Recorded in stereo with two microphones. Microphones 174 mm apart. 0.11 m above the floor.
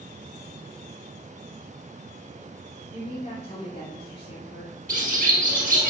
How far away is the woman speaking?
About 2 m.